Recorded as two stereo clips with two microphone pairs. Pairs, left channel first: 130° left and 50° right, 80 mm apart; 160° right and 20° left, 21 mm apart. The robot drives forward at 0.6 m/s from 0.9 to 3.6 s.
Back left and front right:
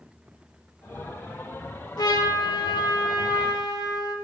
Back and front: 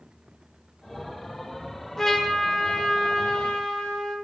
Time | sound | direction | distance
2.0 | a trumpet | 130° left | 1.0 m